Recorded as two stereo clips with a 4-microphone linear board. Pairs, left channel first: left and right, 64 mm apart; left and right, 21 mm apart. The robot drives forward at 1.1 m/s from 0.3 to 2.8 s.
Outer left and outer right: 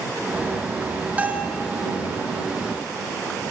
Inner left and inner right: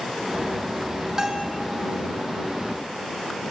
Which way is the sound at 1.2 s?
20° right (ahead or behind).